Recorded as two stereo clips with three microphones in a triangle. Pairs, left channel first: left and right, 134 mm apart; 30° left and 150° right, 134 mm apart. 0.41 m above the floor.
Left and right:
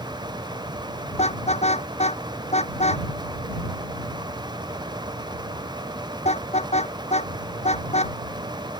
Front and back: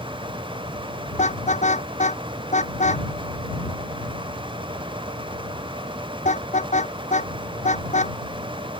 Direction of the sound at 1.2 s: 55° left.